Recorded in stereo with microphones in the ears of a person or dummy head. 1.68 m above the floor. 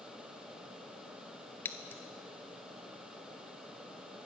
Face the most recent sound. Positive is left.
turn(degrees=15)  # may be behind; listen again after turning